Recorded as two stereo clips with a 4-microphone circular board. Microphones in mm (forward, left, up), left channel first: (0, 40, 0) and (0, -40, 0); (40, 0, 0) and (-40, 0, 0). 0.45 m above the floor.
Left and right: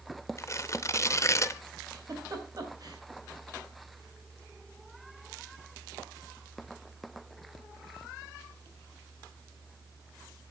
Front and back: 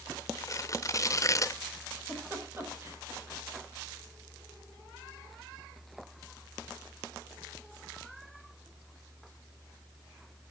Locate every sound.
0.4 s tearing paper: 45° left, 0.5 m
1.9 s a giggle: 125° right, 3 m